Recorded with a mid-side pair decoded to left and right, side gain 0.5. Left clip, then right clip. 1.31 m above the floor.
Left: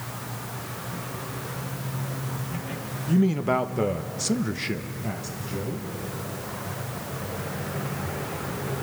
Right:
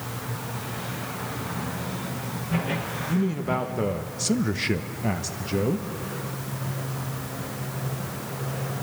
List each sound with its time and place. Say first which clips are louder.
3.1 s a man speaking: left 5 dB; 35° left, 1.5 m; by 5.9 s 60° right, 1.6 m